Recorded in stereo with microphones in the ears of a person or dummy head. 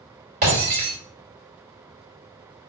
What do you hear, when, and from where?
0.4 s breaking glass: 55° right (ahead or behind), 2 m